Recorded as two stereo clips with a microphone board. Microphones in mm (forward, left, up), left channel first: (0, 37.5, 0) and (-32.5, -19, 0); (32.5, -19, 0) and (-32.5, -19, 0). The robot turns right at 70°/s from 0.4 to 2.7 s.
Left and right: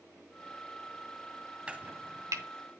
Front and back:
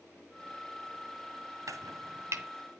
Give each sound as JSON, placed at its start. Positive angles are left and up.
{"t": 1.7, "sound": "chopping", "azimuth_deg": 170, "distance_m": 2.0}